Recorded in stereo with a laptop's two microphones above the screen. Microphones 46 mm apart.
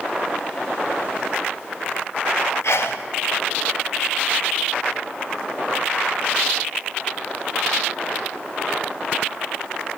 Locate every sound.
2.6 s a sneeze: 75° left (ahead or behind), 0.7 m